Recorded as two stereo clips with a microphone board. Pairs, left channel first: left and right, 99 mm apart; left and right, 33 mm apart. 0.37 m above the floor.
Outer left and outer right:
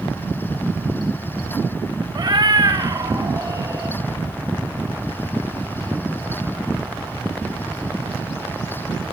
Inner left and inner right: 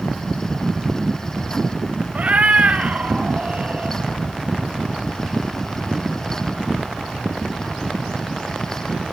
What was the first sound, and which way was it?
A cat meowing, 50° right (ahead or behind).